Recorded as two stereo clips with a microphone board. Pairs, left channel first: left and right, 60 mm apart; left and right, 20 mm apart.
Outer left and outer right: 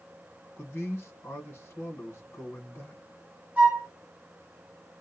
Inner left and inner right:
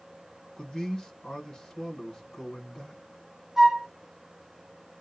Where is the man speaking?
40° left (ahead or behind), 1.3 m.